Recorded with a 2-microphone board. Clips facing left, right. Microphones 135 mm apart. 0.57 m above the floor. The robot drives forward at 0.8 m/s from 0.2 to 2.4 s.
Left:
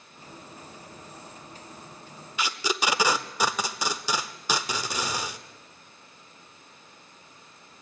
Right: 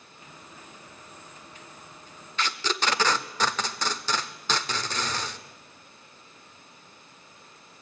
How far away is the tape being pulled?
About 0.5 m.